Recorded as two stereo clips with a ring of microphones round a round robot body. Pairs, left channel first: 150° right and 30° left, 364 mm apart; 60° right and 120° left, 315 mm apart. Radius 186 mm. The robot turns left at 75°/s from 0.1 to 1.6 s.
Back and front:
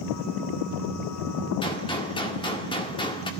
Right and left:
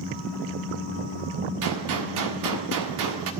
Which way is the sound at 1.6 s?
135° left.